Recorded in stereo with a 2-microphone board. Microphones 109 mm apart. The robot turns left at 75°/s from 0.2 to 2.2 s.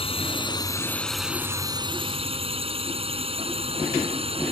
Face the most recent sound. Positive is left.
turn(degrees=-70)  # may be behind; listen again after turning